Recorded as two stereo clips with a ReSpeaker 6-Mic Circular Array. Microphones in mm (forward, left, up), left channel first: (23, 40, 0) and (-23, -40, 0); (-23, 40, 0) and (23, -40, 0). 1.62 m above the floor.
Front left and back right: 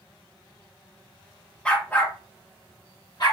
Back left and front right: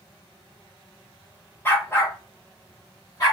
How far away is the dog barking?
About 1.0 m.